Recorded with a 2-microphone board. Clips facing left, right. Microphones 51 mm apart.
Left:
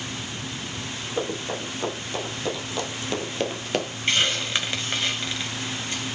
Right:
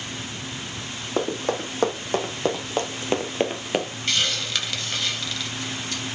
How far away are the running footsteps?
About 4.5 m.